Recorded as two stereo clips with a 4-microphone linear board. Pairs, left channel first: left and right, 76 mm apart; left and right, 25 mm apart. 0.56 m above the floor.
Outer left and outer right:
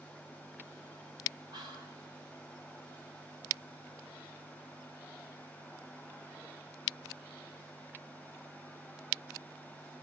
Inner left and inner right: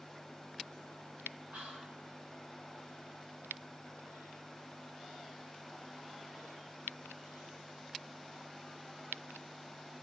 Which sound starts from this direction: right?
Whispering, at 1.5 s.